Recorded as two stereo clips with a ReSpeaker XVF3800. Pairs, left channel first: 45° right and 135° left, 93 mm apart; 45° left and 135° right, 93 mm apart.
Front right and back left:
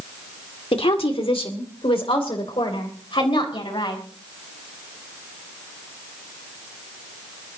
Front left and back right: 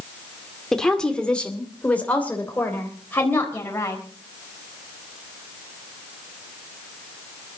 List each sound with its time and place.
0.7 s a woman speaking: 40° right, 2 m; by 4.0 s 20° right, 4 m